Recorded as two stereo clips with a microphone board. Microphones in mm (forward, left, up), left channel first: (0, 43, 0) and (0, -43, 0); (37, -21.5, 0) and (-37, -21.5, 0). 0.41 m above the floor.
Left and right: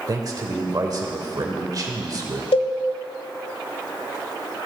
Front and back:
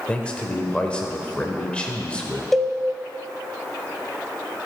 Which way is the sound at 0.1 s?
70° right.